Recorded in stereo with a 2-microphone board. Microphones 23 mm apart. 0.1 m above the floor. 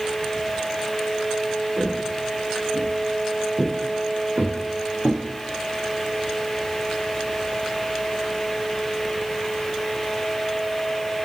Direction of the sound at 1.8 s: 45° right (ahead or behind).